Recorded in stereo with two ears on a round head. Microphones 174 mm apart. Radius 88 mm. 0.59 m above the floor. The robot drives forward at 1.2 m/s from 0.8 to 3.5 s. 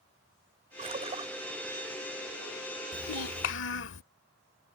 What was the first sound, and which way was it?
A splash, 35° right (ahead or behind).